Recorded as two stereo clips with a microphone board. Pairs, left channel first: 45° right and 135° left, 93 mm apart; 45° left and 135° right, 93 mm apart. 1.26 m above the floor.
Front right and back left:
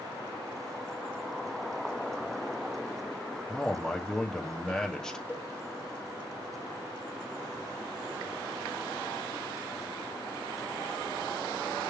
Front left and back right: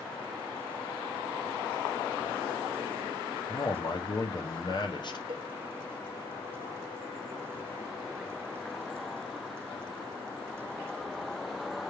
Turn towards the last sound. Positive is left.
turn(degrees=-165)